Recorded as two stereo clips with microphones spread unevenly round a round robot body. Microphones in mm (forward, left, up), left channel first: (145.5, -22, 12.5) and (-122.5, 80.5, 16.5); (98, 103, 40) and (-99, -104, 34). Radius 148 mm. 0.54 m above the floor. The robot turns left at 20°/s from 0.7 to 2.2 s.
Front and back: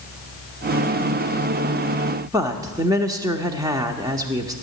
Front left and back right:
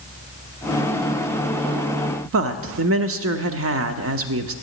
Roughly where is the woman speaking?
Behind right.